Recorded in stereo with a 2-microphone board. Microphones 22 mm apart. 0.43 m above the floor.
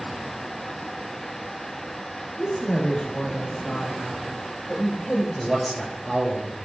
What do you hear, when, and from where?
2.4 s a woman speaking: 65° left (ahead or behind), 3 m; by 5.2 s 30° left (ahead or behind), 2 m
5.3 s a man speaking: 5° left (ahead or behind), 6.5 m